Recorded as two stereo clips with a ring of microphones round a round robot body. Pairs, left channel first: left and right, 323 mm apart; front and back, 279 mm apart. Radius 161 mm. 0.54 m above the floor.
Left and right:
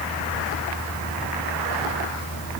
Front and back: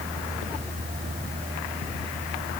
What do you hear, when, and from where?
Only background noise.